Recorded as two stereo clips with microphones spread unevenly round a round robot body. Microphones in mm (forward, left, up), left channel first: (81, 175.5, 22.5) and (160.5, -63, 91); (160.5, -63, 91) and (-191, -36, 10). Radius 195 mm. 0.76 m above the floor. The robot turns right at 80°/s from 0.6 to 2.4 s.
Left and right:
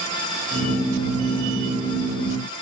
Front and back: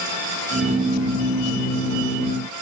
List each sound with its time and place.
Only background noise.